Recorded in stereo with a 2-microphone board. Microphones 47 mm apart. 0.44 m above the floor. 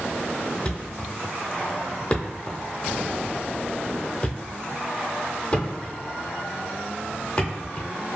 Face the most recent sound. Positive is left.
turn(degrees=30)  # may be behind; listen again after turning